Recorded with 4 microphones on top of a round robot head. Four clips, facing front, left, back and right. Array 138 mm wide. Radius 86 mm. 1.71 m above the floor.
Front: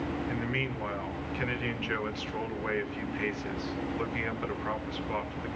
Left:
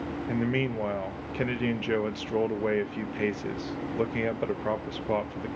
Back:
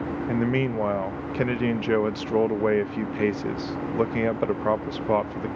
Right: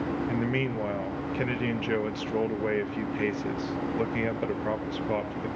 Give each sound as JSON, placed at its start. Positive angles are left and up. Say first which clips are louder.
{"t": 0.3, "sound": "a man speaking", "louder": "even, back 9 dB", "azimuth_deg": 175, "distance_m": 0.7}